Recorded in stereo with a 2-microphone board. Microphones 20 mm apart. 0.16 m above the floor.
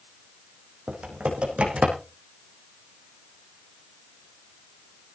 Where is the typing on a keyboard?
80° right, 4.5 m.